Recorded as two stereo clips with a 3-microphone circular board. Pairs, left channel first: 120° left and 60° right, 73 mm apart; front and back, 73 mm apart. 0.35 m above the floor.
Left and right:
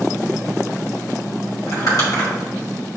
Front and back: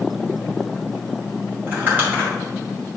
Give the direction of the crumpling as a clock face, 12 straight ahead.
8 o'clock.